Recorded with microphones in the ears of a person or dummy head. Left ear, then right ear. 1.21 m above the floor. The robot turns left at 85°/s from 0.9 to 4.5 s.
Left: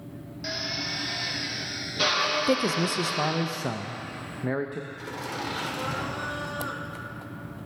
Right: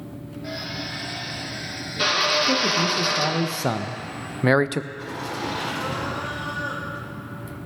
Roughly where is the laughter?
Left.